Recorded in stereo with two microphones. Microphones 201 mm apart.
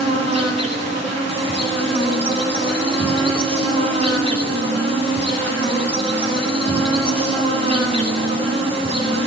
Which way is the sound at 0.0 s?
30° right (ahead or behind).